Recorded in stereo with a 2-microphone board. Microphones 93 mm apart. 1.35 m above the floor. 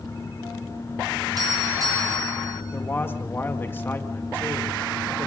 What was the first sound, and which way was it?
A doorbell, 45° right (ahead or behind).